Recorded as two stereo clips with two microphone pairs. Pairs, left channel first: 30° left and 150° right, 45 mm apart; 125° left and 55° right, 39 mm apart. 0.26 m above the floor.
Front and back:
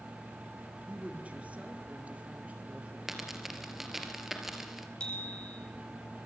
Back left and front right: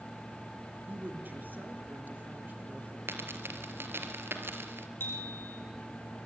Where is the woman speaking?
90° right, 3 m.